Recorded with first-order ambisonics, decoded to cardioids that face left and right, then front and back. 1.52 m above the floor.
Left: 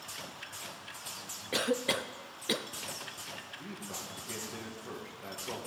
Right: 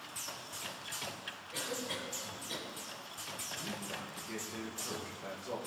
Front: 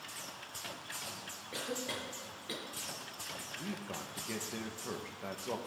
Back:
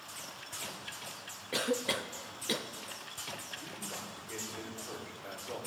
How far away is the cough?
About 0.7 m.